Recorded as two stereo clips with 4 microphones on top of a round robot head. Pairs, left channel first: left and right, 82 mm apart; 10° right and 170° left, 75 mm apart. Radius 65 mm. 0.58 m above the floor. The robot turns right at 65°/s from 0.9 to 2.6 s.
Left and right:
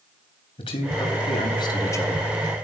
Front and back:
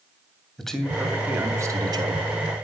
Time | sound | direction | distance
0.6 | a man speaking | 75° left | 3.5 m